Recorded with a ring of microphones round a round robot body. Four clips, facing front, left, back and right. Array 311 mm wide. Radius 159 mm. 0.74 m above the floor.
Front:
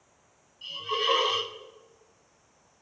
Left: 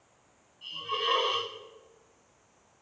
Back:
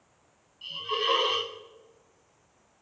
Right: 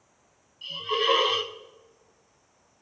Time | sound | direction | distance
0.6 | a hiss | 95° right | 1.5 m